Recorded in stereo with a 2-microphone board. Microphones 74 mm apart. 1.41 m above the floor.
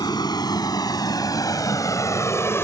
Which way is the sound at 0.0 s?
65° left (ahead or behind).